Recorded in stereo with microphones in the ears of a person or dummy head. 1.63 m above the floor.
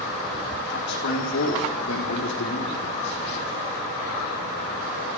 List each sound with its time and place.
0.7 s a man speaking: 65° left (ahead or behind), 4 m; by 3.5 s 80° left, 5 m